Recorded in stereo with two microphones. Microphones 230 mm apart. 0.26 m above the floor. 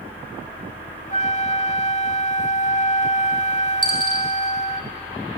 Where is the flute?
30° left (ahead or behind), 0.6 m.